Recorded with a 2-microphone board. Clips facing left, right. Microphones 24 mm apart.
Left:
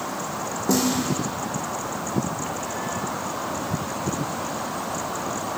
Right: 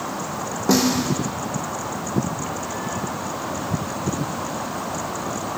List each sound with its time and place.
0.7 s a snare drum: 40° right (ahead or behind), 2 m